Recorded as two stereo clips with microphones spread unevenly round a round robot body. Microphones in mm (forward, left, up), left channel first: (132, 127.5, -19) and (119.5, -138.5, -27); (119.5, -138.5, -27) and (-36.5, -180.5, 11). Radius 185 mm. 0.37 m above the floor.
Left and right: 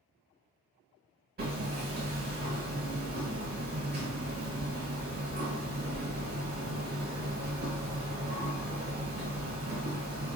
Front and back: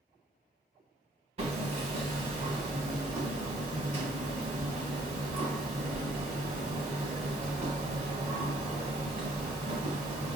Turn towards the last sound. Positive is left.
turn(degrees=-120)